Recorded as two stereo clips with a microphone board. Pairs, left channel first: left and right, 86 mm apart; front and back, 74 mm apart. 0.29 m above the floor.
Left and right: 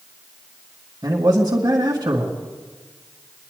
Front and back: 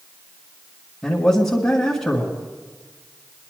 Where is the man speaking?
75° right, 1.7 m.